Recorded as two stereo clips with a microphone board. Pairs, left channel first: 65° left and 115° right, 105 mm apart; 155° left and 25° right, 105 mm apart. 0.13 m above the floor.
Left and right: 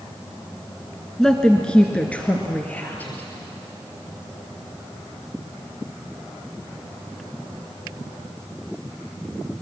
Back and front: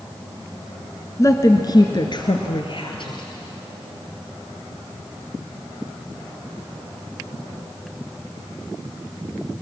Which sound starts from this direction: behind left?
A woman speaking, at 1.2 s.